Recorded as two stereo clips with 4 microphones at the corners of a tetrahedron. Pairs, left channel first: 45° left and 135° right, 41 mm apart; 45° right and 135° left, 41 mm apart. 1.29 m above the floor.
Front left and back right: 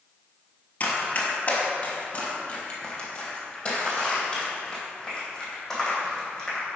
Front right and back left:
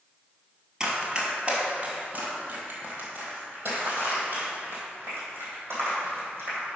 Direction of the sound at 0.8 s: 70° left.